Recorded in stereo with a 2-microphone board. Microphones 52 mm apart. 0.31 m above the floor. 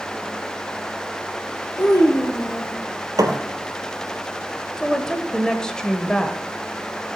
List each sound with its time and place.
1.8 s a child speaking: 55° left (ahead or behind), 5 m
3.2 s a thud: 85° right, 2.5 m
4.8 s a woman speaking: 15° left (ahead or behind), 1.1 m